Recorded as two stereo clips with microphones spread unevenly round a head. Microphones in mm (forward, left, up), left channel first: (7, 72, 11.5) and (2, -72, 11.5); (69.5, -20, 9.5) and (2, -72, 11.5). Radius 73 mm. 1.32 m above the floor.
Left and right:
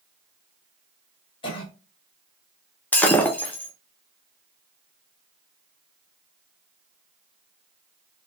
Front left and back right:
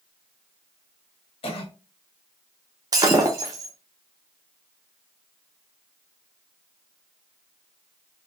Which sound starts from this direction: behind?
Breaking glass, at 2.9 s.